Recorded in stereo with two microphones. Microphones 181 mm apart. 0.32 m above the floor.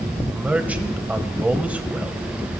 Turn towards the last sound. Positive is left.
turn(degrees=-10)  # may be behind; listen again after turning